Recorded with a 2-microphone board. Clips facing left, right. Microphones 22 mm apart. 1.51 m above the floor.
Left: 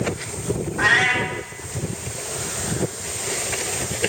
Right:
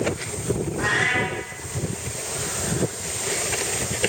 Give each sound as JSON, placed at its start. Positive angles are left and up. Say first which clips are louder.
{"t": 0.8, "sound": "a cat meowing", "louder": "left 5 dB", "side_deg": 25, "distance_m": 1.8}